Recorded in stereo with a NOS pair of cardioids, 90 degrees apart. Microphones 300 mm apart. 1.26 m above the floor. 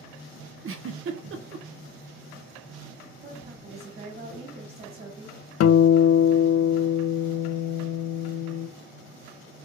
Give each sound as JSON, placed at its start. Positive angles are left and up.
{"t": 0.6, "sound": "a giggle", "azimuth_deg": -45, "distance_m": 0.6}
{"t": 3.2, "sound": "a woman speaking", "azimuth_deg": -30, "distance_m": 1.8}
{"t": 5.6, "sound": "a guitar", "azimuth_deg": 60, "distance_m": 0.5}